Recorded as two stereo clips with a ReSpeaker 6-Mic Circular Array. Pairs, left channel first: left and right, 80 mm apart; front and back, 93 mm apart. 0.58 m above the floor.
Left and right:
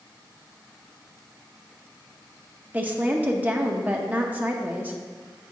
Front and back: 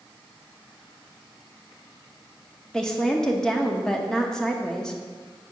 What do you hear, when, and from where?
2.7 s a woman speaking: 70° right, 0.8 m